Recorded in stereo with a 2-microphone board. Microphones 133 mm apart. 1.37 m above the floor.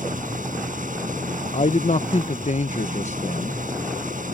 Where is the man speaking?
60° left (ahead or behind).